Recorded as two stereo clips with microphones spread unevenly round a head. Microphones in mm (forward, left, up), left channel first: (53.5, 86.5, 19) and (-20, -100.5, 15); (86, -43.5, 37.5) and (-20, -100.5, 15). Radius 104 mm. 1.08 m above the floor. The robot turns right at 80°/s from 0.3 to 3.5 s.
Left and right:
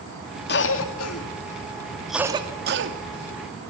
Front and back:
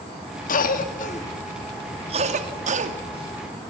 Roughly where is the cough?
Ahead left.